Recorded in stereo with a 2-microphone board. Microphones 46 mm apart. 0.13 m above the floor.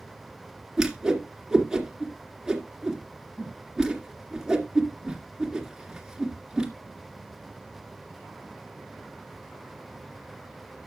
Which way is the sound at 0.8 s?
15° right (ahead or behind).